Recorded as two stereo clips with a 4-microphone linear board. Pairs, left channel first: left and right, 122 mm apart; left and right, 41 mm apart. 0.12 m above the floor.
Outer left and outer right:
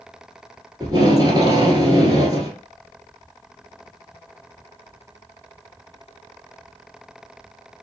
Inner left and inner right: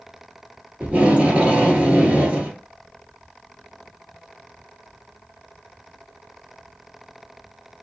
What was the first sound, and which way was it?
Tape being pulled, 30° right (ahead or behind).